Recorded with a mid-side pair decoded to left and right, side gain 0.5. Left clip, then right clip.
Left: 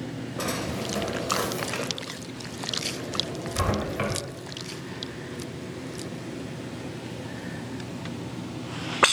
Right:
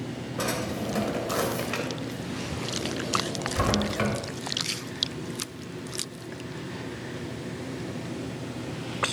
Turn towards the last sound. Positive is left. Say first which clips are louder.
# even
turn(degrees=-5)